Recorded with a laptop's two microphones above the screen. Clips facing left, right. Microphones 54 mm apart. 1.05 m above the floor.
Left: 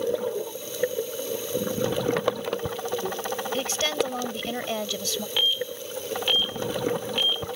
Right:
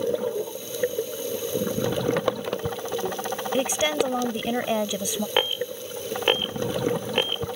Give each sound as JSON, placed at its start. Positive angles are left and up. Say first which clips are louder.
{"t": 3.5, "sound": "a woman speaking", "louder": "right 5 dB", "side_deg": -15}
{"t": 5.4, "sound": "an alarm", "louder": "right 1 dB", "side_deg": -45}